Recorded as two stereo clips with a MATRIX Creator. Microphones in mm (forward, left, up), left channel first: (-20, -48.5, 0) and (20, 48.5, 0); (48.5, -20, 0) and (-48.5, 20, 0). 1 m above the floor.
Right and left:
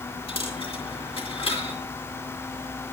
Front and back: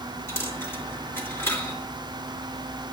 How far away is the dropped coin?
About 3 m.